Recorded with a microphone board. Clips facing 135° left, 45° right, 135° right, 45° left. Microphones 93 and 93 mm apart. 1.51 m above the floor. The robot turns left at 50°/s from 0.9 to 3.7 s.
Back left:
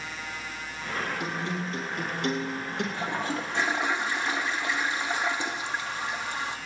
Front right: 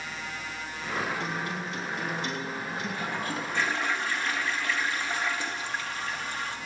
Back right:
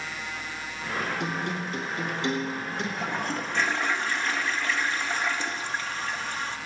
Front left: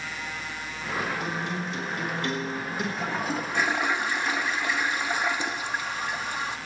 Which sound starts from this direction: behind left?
A toilet flushing, at 2.9 s.